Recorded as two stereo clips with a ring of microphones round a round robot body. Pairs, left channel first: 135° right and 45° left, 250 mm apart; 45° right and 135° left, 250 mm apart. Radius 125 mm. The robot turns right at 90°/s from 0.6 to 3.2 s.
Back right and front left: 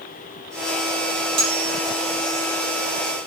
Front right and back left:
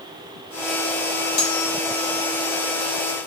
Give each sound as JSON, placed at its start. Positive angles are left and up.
{"t": 1.4, "sound": "cutlery clinking", "azimuth_deg": 5, "distance_m": 1.1}